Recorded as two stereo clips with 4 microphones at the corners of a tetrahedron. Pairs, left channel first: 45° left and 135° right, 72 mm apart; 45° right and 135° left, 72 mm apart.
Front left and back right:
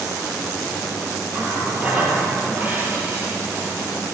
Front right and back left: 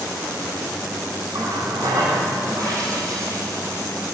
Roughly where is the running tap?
Behind left.